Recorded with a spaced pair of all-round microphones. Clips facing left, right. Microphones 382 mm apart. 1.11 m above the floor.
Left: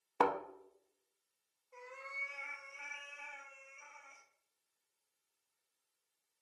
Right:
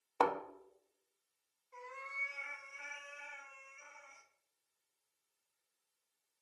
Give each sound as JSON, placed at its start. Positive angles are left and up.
{"t": 0.2, "sound": "a thud", "side_deg": 30, "distance_m": 0.5}
{"t": 1.7, "sound": "a cat meowing", "side_deg": -30, "distance_m": 1.1}